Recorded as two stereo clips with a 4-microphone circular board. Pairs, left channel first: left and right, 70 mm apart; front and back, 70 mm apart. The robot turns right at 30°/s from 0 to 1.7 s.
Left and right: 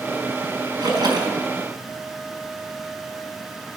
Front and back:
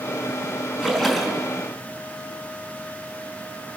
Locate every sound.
0.8 s a splash: 100° right, 4.5 m; by 1.4 s 80° right, 4.5 m